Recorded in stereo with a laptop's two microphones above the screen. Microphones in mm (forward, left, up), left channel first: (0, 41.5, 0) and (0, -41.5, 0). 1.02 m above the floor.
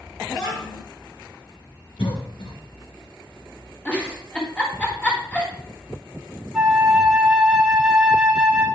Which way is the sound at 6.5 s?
5° right (ahead or behind).